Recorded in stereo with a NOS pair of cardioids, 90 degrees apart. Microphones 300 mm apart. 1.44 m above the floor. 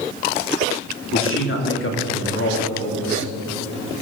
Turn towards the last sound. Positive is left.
turn(degrees=45)